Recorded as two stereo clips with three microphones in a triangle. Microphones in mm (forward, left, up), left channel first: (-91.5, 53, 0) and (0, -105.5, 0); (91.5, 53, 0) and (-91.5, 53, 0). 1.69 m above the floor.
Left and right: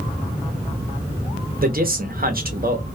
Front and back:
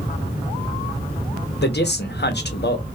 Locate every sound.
1.6 s a man speaking: 25° right, 0.7 m